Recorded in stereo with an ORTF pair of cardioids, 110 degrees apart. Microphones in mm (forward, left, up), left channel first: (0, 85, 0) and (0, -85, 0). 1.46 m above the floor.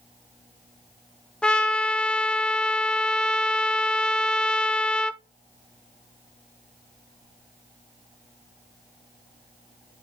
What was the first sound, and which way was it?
A trumpet, 5° left.